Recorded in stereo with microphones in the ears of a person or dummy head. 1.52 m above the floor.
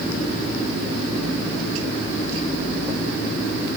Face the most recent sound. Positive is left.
No sound to turn to.